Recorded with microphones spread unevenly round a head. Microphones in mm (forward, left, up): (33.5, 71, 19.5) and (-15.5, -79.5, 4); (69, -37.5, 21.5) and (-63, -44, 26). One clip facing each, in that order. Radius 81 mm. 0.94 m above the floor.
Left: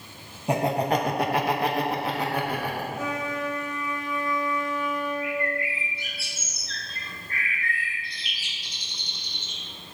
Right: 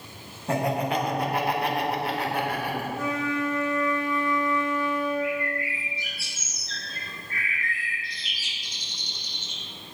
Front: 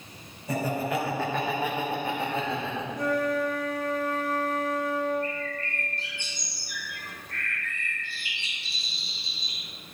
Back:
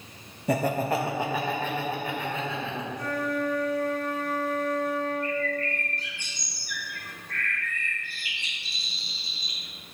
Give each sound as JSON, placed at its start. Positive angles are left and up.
{"t": 0.5, "sound": "laughter", "azimuth_deg": 150, "distance_m": 0.9}
{"t": 2.9, "sound": "a flute", "azimuth_deg": -5, "distance_m": 1.3}
{"t": 5.2, "sound": "a bird", "azimuth_deg": 55, "distance_m": 1.1}